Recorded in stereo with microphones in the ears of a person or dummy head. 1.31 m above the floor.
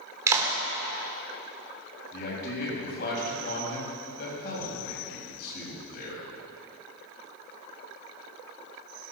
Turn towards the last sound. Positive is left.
turn(degrees=55)  # may be behind; listen again after turning